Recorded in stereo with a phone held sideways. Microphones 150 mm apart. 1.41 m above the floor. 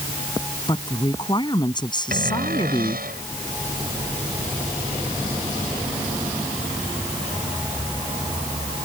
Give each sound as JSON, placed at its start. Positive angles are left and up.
{"t": 0.7, "sound": "a woman speaking", "side_deg": 30}
{"t": 2.1, "sound": "a cupboard door", "side_deg": -80}